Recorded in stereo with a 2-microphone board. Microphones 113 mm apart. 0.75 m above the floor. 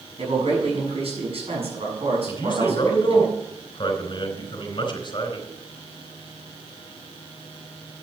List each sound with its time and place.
0.2 s a man speaking: 60° right (ahead or behind), 6.5 m
2.3 s a man speaking: 45° left (ahead or behind), 4 m